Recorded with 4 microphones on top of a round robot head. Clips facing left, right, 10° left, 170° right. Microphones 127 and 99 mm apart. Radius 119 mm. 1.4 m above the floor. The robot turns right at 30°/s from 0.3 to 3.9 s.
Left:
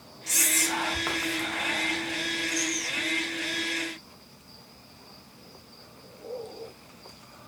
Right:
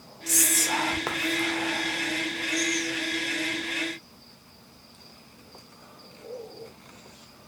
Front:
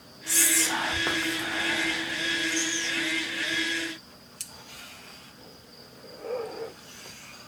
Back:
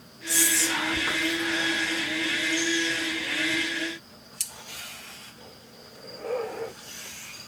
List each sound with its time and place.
0.3 s whispering: 50° right, 0.7 m; by 3.1 s 30° left, 0.7 m